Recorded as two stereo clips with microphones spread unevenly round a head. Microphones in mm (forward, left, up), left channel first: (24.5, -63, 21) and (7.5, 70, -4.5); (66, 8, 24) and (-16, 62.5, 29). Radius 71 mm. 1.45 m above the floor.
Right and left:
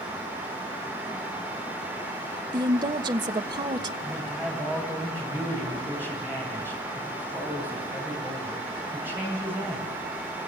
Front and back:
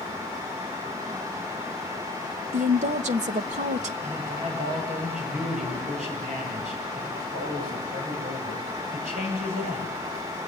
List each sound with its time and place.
2.5 s a woman speaking: 160° left, 1.2 m
4.0 s a man speaking: 175° left, 10 m